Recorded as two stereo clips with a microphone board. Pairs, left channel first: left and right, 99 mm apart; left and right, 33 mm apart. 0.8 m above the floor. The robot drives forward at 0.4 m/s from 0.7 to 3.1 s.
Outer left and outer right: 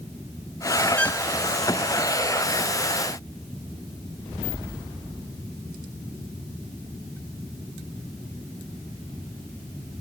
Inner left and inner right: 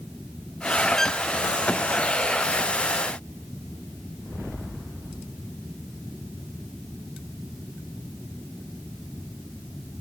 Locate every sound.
1.0 s a violin: 15° left (ahead or behind)